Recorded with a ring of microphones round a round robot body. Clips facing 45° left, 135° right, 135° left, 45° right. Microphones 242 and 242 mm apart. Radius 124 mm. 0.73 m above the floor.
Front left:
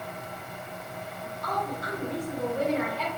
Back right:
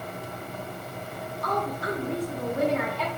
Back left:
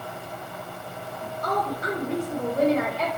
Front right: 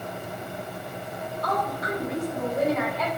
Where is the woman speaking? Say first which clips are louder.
Back right 4 dB, back left 1 dB; 165° right, 1.2 m.